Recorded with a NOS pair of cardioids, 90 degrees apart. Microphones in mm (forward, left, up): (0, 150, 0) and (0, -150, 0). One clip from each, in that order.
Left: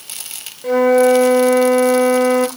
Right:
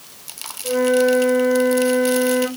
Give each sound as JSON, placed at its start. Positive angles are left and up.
{"t": 0.6, "sound": "a flute", "azimuth_deg": 50, "distance_m": 0.6}